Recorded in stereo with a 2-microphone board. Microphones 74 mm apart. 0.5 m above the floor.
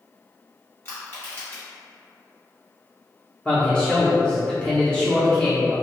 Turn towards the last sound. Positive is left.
turn(degrees=15)  # may be behind; listen again after turning